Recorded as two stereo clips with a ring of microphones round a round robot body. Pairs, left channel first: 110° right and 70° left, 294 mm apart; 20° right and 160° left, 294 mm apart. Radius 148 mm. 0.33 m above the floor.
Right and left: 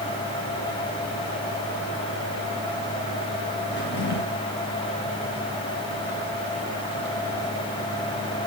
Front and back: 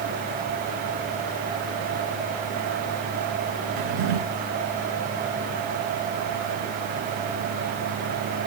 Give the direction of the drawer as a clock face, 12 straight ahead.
6 o'clock.